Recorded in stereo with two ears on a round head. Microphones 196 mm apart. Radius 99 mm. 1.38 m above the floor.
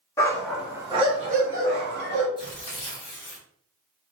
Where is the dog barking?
15° left (ahead or behind), 0.9 m; by 2.3 s 60° right (ahead or behind), 1.4 m.